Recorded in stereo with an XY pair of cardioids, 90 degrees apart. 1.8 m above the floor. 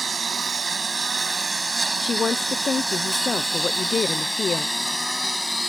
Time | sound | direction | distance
0.0 | a lawn mower | 40° right | ?
2.0 | a woman speaking | 50° left | ?